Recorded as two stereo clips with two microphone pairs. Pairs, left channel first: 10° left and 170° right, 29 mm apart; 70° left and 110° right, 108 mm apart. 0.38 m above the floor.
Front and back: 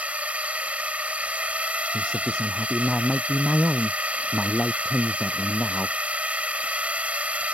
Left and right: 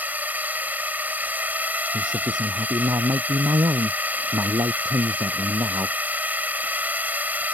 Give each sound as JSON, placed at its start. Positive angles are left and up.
{"t": 0.0, "sound": "a drone", "azimuth_deg": 180}
{"t": 1.9, "sound": "a man speaking", "azimuth_deg": -60}